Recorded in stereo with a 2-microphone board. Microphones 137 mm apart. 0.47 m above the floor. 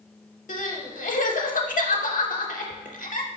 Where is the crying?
75° left (ahead or behind), 0.6 m.